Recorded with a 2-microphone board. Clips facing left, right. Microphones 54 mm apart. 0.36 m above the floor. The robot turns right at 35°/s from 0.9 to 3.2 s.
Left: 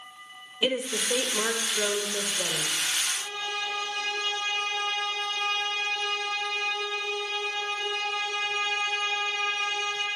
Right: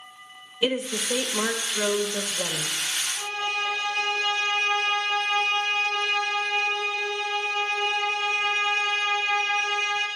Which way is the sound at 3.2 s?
50° right (ahead or behind).